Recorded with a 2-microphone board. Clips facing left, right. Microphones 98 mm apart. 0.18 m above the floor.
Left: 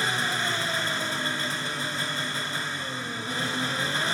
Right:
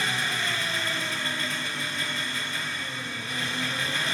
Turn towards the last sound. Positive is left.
turn(degrees=35)  # may be behind; listen again after turning